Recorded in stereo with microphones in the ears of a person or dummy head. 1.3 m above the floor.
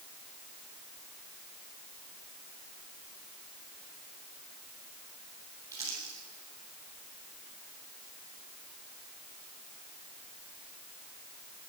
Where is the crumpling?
20° right (ahead or behind), 9 m.